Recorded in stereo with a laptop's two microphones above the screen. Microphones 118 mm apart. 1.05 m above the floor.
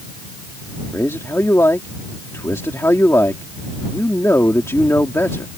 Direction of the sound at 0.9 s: 25° left (ahead or behind).